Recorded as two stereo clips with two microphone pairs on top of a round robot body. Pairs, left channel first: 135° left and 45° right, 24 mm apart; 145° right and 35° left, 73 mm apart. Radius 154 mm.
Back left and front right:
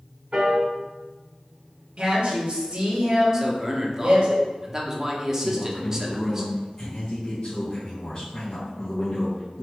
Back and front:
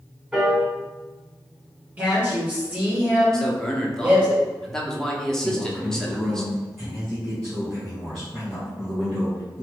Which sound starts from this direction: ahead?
A woman speaking, at 2.0 s.